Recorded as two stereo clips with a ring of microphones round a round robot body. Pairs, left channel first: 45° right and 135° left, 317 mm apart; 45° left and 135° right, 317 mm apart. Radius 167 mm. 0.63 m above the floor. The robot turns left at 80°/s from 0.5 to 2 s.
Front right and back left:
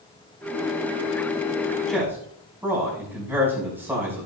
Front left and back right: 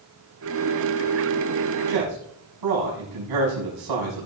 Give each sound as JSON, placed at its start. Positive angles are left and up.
{"t": 1.9, "sound": "a man speaking", "azimuth_deg": -130, "distance_m": 5.5}